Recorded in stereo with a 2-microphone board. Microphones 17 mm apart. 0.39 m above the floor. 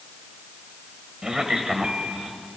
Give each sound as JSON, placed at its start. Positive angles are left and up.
{"t": 1.2, "sound": "a man speaking", "side_deg": -45, "distance_m": 2.0}